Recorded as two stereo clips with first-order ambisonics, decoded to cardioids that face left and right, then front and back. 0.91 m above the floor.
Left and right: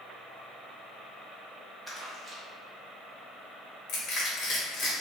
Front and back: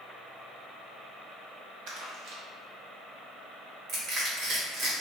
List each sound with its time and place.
1.9 s crumpling: 175° right, 1.4 m
3.9 s crushing: 135° left, 2 m